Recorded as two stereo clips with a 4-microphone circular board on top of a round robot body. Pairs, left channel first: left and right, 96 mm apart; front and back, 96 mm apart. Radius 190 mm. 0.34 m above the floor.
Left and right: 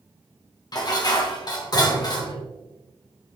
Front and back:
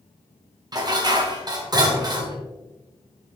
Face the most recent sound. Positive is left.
turn(degrees=135)